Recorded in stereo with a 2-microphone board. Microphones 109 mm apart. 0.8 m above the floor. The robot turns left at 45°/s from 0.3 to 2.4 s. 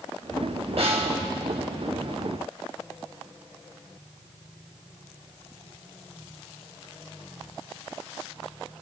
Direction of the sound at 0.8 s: 70° right (ahead or behind).